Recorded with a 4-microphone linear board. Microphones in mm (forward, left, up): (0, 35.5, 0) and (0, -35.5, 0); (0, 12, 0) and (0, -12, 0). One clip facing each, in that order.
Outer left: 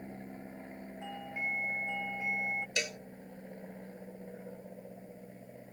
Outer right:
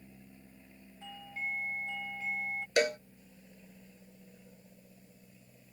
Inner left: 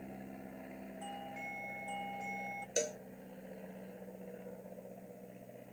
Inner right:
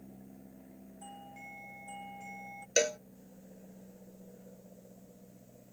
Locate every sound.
0.0 s an aircraft: 55° left (ahead or behind)
1.0 s a doorbell: 20° left (ahead or behind)
2.8 s a cowbell: 45° right (ahead or behind)